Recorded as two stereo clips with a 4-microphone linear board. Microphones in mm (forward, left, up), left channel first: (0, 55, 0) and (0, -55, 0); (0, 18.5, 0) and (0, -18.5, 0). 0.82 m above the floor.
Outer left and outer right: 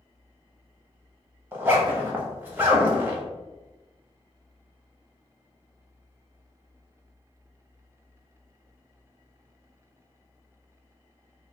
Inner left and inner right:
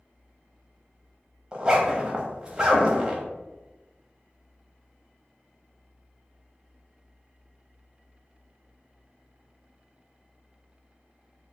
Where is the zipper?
15° right (ahead or behind), 0.9 m.